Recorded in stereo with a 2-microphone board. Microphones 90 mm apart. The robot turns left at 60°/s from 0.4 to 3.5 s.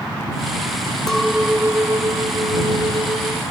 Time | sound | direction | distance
1.1 | a clink | 10° left | ?